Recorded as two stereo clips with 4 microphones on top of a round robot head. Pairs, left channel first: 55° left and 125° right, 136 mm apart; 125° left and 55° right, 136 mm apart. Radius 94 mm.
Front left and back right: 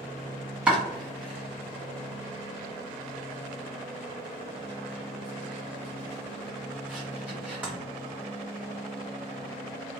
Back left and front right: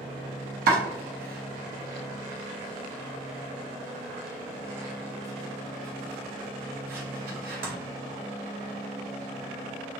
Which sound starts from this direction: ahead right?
Chopping, at 0.7 s.